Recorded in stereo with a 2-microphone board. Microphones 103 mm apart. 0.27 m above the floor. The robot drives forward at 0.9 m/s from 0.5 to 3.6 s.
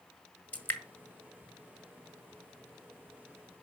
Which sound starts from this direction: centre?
Dripping, at 0.5 s.